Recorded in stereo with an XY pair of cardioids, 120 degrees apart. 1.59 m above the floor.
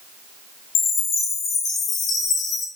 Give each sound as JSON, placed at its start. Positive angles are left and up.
{"t": 0.8, "sound": "a chime", "azimuth_deg": 60, "distance_m": 1.1}